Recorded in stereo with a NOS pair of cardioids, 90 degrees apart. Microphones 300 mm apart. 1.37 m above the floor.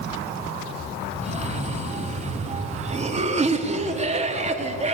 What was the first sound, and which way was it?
A cough, 20° right.